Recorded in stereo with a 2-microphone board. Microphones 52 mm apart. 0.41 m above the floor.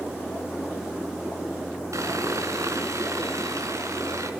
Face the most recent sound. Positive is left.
turn(degrees=-70)  # may be behind; listen again after turning